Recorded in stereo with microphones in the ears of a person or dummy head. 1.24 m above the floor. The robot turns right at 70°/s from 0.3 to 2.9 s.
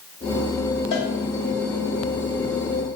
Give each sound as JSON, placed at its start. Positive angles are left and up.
{"t": 0.9, "sound": "a cowbell", "side_deg": 55, "distance_m": 1.7}